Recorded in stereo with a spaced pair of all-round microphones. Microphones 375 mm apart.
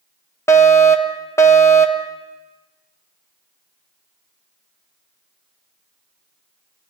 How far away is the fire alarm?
About 1.6 m.